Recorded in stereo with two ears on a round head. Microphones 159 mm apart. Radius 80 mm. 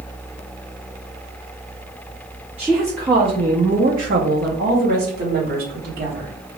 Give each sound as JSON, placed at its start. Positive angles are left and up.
{"t": 2.6, "sound": "a woman speaking", "side_deg": -10, "distance_m": 0.9}